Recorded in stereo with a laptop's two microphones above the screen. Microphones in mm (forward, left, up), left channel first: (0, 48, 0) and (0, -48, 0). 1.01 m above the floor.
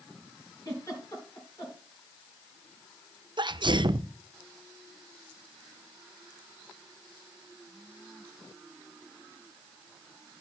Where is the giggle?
35° left (ahead or behind), 3 m.